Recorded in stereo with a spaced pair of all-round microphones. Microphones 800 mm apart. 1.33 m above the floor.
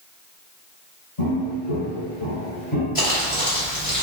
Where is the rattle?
I don't hear a rattle.